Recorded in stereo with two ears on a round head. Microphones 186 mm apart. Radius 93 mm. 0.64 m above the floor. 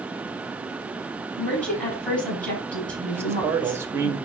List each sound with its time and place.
1.4 s a woman speaking: 5° left (ahead or behind), 5 m
3.1 s a man speaking: 10° right (ahead or behind), 1.1 m